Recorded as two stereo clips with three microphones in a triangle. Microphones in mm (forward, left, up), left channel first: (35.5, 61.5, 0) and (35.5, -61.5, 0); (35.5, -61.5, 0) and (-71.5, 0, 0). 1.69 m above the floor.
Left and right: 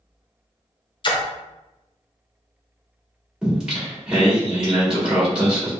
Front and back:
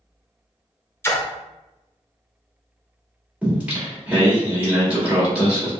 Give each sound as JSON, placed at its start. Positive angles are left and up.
{"t": 1.0, "sound": "a splash", "azimuth_deg": 40, "distance_m": 0.6}
{"t": 3.4, "sound": "singing", "azimuth_deg": -155, "distance_m": 1.4}